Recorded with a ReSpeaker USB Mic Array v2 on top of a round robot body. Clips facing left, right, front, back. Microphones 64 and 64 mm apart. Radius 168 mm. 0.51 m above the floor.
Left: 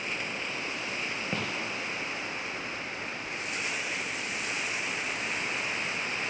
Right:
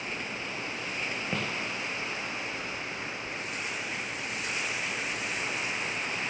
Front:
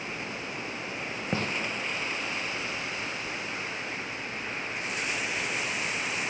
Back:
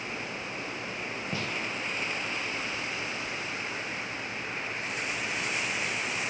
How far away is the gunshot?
About 1.2 m.